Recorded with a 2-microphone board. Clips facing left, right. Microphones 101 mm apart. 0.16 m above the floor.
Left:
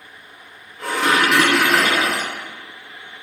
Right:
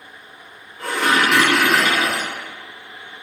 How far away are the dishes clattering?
About 0.8 m.